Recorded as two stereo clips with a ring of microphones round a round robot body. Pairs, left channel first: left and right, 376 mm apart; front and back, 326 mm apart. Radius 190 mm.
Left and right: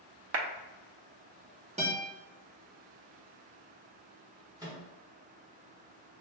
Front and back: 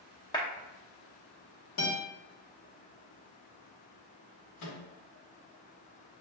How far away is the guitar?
About 1.6 m.